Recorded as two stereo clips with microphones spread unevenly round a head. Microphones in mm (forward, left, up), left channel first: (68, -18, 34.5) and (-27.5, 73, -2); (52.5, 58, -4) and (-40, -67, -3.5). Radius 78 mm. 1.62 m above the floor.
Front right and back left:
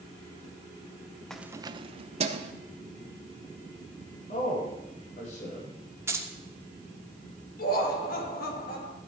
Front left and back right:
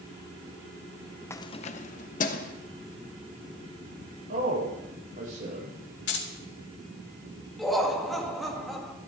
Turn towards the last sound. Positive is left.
turn(degrees=-35)